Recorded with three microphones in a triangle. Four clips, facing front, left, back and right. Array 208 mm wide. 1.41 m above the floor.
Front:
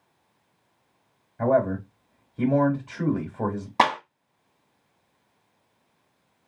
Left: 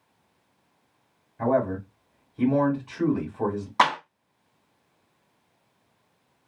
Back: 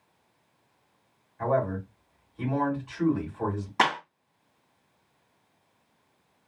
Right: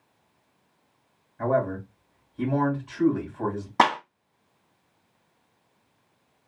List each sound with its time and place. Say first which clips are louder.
1.4 s a man speaking: left 1 dB, front 5 dB; 10° left, 2.0 m
3.8 s a clap: right 1 dB, front 4 dB; 45° right, 1.2 m